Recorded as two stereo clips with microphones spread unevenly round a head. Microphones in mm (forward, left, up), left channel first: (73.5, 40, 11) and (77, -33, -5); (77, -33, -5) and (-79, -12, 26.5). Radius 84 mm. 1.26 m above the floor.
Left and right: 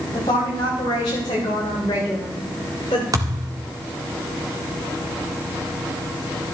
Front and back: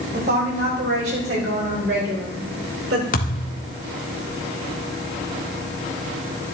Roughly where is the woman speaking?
Behind left.